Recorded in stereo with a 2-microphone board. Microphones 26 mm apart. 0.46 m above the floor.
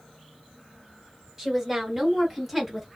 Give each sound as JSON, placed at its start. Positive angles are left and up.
{"t": 1.4, "sound": "a woman speaking", "side_deg": -15, "distance_m": 1.5}